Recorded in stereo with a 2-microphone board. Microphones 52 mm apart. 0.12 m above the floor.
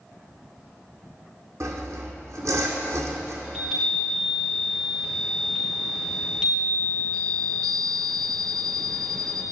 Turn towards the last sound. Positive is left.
turn(degrees=-10)  # may be behind; listen again after turning